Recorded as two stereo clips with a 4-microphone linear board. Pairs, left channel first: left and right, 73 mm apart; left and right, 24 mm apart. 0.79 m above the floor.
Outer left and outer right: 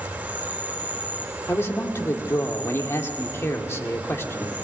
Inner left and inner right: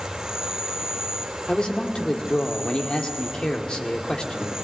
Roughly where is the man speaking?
Left.